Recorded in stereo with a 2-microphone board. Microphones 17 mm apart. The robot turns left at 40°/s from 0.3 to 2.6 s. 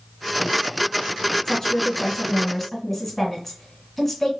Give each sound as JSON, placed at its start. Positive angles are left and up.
{"t": 1.4, "sound": "a woman speaking", "azimuth_deg": 60, "distance_m": 1.7}